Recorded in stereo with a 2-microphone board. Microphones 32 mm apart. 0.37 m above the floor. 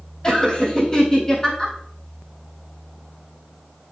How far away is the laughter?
About 3.5 m.